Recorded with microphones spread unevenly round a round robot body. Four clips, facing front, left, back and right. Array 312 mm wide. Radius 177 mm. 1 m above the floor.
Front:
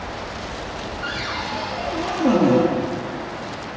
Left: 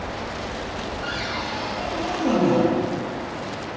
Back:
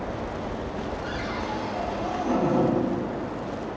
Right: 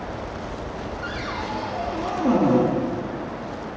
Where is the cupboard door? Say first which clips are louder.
Right 1 dB, front 2 dB; 15° right, 2 m.